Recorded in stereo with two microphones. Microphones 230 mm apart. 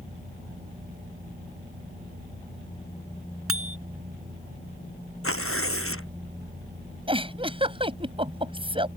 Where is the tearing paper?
70° left (ahead or behind).